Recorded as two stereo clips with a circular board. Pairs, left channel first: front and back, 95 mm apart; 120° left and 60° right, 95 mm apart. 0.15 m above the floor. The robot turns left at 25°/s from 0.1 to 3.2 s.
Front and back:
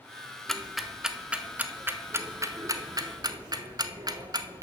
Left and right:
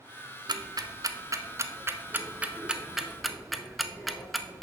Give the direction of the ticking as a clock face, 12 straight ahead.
3 o'clock.